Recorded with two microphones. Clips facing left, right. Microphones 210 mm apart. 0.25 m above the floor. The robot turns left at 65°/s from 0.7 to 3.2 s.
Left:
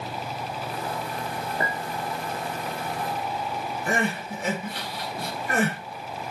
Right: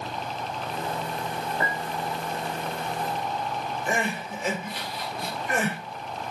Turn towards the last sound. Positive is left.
turn(degrees=60)  # may be behind; listen again after turning